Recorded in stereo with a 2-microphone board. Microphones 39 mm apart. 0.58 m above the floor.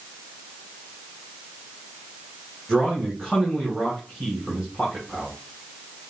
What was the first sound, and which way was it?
A man speaking, centre (ahead or behind).